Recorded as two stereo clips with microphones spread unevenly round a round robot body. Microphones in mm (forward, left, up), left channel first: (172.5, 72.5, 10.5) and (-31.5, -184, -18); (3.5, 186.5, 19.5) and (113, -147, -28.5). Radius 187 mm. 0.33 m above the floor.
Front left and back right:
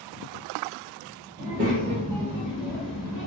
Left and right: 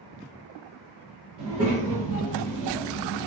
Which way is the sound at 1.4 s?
115° right.